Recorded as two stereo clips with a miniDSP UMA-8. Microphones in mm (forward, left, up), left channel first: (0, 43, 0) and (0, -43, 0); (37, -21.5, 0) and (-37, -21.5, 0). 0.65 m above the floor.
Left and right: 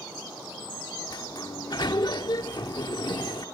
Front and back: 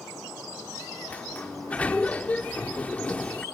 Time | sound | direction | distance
1.1 | a sliding door | 70° left | ?